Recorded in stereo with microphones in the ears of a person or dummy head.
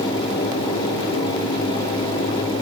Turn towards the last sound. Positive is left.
No sound to turn to.